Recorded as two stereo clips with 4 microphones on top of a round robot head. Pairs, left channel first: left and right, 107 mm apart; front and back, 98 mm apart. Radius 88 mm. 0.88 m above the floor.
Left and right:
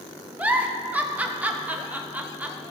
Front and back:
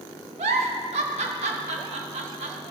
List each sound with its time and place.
0.4 s a giggle: 165° right, 0.6 m